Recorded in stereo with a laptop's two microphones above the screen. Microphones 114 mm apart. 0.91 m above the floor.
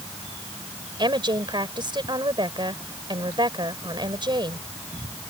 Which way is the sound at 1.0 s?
45° right (ahead or behind).